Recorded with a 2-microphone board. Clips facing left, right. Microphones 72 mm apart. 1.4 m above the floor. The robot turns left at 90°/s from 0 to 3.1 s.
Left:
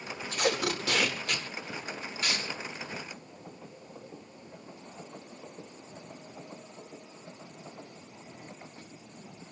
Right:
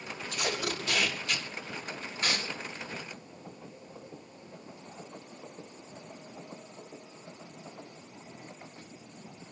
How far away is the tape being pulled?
About 4.5 m.